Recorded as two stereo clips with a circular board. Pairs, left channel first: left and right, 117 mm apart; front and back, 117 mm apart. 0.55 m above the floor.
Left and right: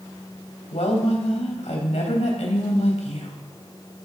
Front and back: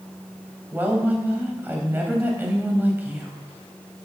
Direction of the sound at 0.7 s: 105° left.